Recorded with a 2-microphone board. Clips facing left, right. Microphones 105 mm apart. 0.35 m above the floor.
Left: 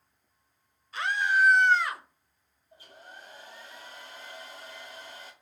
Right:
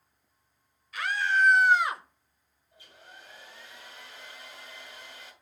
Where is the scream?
30° left (ahead or behind), 1.1 m; by 2.0 s 30° right (ahead or behind), 1.0 m.